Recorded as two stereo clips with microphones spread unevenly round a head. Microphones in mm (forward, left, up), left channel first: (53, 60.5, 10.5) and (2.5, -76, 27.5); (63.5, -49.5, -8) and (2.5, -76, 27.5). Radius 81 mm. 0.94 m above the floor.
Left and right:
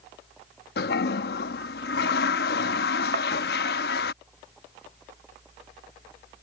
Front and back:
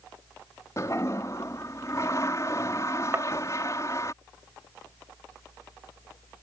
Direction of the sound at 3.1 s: 120° right.